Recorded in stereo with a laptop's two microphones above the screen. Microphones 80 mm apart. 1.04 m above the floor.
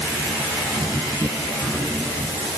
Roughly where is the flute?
I don't hear a flute.